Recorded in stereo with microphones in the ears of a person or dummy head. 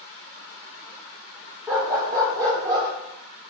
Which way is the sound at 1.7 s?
15° right (ahead or behind).